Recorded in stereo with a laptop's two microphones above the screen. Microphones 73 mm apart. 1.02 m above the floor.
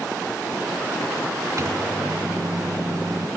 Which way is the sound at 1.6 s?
45° right (ahead or behind).